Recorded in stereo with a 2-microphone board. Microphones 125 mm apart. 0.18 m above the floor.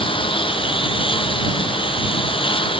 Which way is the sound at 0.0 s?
45° left (ahead or behind).